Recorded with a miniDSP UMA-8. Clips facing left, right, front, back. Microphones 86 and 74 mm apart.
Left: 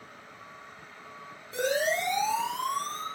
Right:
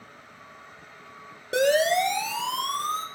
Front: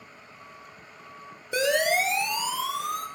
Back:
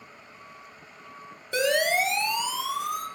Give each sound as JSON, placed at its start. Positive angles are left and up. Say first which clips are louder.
{"t": 1.5, "sound": "a siren", "louder": "right 7 dB, even", "azimuth_deg": -75, "distance_m": 6.5}